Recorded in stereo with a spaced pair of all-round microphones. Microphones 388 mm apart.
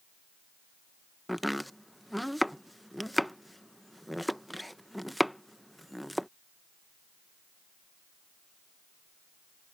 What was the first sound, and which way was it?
Chopping, centre (ahead or behind).